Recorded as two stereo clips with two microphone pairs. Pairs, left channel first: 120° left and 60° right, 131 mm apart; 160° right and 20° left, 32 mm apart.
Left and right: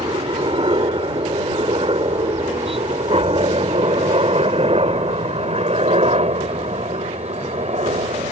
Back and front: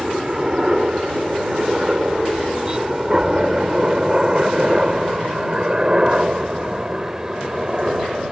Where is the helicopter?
40° right.